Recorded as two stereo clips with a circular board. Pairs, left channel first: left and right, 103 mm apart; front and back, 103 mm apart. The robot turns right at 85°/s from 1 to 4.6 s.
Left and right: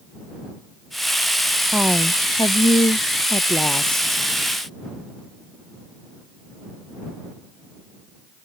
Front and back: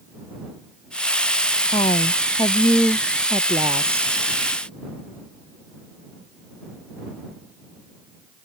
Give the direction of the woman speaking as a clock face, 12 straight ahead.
1 o'clock.